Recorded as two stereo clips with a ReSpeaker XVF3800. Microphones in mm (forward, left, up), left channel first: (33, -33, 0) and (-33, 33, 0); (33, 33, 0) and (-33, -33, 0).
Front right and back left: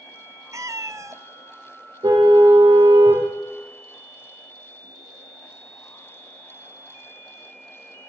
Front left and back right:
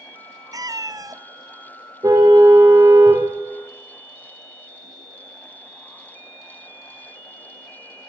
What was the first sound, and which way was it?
A cat meowing, 175° right.